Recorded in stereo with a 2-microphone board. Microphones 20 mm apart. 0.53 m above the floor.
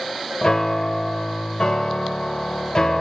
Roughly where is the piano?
Left.